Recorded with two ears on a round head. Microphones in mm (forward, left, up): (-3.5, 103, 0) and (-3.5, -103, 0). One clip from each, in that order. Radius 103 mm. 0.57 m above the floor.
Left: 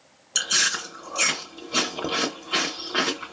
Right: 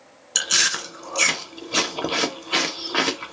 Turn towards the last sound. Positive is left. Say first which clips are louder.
# right 2 dB
turn(degrees=-15)  # may be behind; listen again after turning